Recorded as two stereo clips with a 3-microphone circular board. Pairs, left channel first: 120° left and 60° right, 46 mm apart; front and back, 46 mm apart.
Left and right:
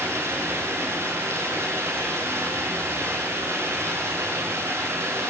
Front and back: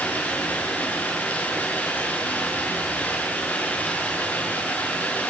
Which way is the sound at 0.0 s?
55° right.